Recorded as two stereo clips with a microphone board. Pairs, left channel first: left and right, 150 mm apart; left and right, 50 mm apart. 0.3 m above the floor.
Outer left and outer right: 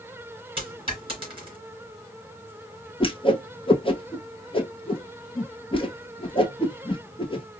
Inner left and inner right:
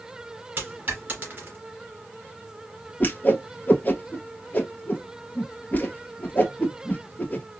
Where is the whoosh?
35° left (ahead or behind), 1.0 m.